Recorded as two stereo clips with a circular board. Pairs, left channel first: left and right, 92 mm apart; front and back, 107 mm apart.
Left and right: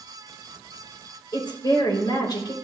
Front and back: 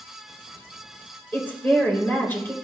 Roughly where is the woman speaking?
Left.